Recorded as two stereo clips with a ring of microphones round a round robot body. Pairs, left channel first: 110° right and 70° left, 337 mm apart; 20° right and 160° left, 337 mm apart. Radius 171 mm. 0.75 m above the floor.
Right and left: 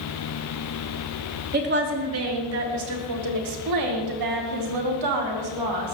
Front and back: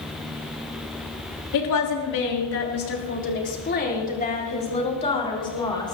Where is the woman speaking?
5° left, 3 m; by 6.0 s 55° left, 5.5 m.